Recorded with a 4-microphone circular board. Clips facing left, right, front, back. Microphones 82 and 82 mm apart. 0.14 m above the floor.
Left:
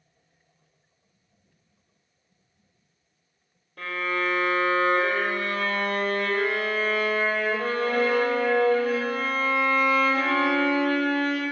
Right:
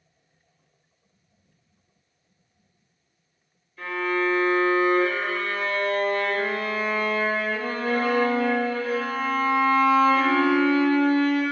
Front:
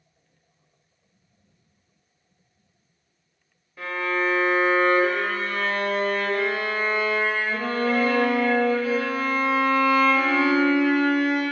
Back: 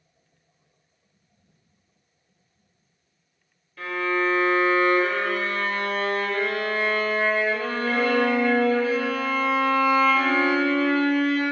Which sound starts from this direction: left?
A violin, at 3.8 s.